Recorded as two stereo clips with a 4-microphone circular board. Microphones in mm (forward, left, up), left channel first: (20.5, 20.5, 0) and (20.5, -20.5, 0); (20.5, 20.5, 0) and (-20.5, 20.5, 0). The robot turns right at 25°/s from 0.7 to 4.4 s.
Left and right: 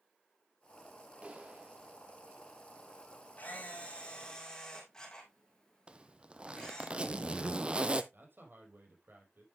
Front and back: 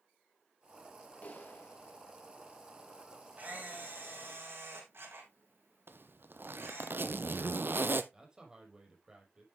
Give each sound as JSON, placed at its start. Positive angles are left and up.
{"t": 1.2, "sound": "a clap", "azimuth_deg": -45, "distance_m": 2.0}
{"t": 3.4, "sound": "a camera shutter", "azimuth_deg": 135, "distance_m": 3.5}
{"t": 5.9, "sound": "a zipper", "azimuth_deg": -155, "distance_m": 0.7}
{"t": 8.1, "sound": "a man speaking", "azimuth_deg": -110, "distance_m": 4.5}